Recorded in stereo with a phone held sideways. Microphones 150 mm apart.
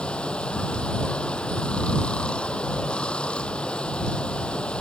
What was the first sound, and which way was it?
Running water, 5° left (ahead or behind).